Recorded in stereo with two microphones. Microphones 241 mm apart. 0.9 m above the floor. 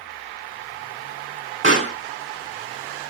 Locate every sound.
1.6 s a pop: 50° right (ahead or behind), 3 m